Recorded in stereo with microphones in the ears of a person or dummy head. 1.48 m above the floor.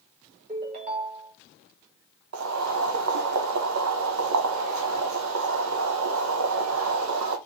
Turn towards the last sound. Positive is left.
turn(degrees=-75)  # may be behind; listen again after turning